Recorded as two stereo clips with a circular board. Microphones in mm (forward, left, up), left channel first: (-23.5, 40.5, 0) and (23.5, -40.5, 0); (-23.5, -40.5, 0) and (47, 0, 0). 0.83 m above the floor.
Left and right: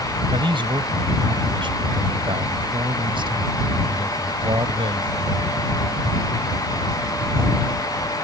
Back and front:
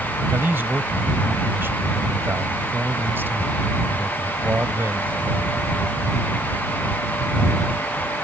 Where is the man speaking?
35° right.